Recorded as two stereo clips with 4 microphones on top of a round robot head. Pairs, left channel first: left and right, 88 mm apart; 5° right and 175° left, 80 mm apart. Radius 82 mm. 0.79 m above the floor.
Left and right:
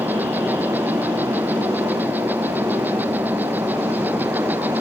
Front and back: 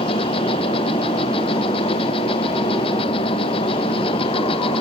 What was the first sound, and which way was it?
An insect, 15° right.